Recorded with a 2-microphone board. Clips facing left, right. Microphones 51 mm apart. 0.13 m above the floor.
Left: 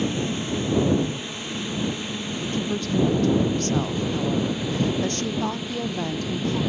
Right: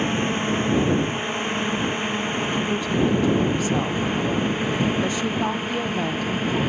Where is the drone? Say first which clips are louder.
Right 3 dB; 40° right (ahead or behind).